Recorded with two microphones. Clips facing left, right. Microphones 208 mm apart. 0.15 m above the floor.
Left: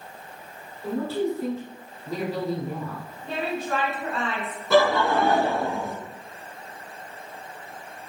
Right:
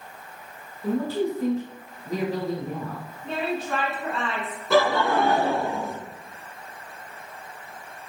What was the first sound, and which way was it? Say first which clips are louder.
A man speaking: right 1 dB; 15° right (ahead or behind).